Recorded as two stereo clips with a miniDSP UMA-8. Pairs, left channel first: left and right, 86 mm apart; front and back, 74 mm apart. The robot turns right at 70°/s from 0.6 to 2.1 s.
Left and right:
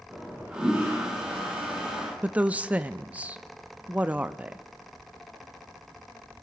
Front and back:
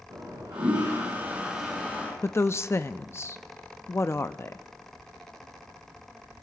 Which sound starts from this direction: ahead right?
A woman speaking, at 2.2 s.